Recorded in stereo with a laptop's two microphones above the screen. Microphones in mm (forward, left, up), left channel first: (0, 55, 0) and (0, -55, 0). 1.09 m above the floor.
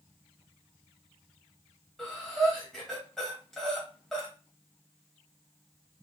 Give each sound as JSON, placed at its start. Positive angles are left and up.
{"t": 2.0, "sound": "breathing", "side_deg": 5, "distance_m": 0.9}